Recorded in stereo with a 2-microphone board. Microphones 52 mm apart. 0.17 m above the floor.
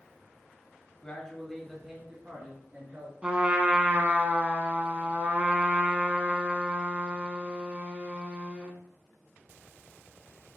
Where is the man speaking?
20° left (ahead or behind), 1.1 m; by 3.1 s 30° right (ahead or behind), 1.9 m.